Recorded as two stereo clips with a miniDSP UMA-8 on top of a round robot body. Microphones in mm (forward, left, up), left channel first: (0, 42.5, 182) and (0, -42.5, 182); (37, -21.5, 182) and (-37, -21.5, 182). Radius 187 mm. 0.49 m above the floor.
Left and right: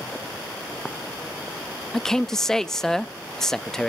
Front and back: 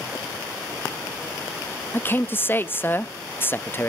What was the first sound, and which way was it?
A man speaking, 10° left.